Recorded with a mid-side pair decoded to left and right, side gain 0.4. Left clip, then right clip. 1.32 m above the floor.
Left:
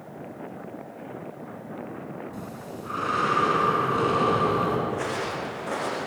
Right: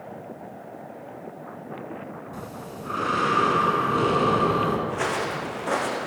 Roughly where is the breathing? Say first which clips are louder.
Right 1 dB; ahead.